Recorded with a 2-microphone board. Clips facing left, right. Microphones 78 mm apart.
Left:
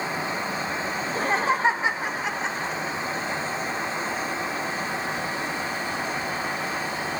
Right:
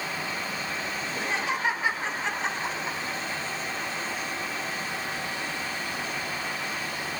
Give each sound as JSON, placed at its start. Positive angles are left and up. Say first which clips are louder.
{"t": 1.0, "sound": "laughter", "louder": "left 7 dB", "side_deg": 50, "distance_m": 2.0}